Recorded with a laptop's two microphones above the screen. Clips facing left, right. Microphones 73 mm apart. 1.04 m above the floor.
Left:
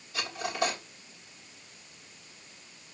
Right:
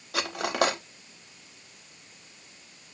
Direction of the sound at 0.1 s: 75° right (ahead or behind).